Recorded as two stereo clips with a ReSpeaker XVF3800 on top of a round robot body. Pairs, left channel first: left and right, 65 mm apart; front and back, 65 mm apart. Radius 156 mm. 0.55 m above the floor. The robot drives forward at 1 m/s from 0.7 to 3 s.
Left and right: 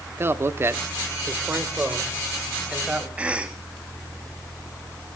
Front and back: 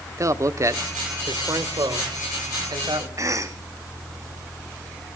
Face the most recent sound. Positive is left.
turn(degrees=-160)